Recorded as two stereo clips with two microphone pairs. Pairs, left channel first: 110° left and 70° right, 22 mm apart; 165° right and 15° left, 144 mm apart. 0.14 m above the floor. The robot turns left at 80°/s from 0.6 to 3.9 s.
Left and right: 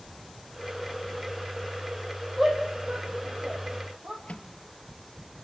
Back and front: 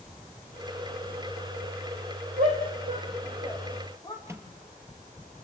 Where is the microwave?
85° left, 2 m.